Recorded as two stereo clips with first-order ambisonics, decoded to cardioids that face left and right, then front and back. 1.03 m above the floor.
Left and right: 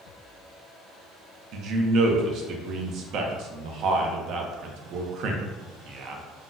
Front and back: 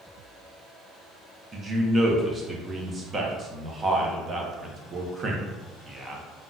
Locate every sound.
1.5 s a man speaking: 115° right, 0.5 m